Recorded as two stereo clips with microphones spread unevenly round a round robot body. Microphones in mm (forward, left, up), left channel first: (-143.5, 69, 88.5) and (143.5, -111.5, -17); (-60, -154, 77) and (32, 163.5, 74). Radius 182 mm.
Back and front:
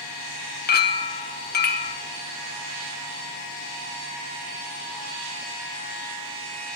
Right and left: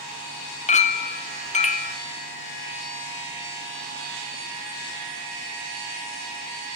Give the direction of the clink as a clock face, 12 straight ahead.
5 o'clock.